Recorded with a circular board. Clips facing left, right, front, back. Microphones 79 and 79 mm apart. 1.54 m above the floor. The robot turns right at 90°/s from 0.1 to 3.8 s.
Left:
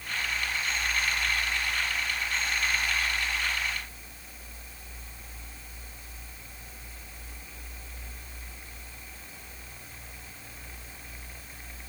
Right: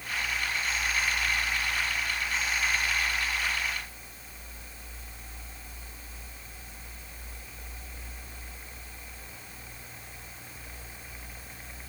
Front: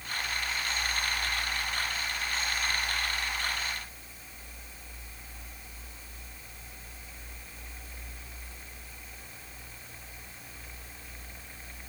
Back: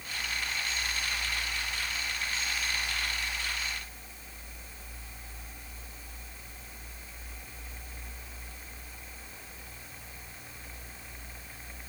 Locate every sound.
Only background noise.